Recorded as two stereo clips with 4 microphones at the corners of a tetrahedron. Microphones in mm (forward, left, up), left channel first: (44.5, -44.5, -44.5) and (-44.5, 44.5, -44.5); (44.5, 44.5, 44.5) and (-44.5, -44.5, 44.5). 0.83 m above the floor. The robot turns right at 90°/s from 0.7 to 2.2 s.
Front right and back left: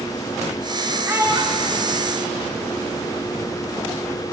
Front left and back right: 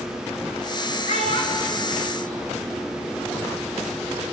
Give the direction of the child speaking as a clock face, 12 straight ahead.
10 o'clock.